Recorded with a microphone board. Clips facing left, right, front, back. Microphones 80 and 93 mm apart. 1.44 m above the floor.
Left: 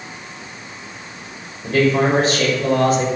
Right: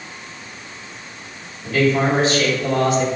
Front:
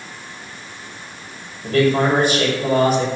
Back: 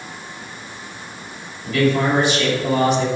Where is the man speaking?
45° left, 5.5 m.